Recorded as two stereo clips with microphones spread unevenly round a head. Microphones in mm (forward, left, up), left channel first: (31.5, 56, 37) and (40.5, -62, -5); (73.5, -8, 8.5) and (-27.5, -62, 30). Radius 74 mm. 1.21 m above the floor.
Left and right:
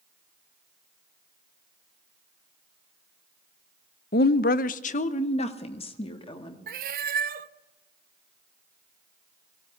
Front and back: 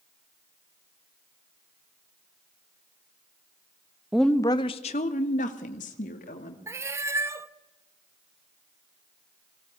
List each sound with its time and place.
4.1 s a woman speaking: 125° left, 0.6 m; by 6.6 s 45° left, 2 m
6.7 s a cat meowing: 105° right, 0.6 m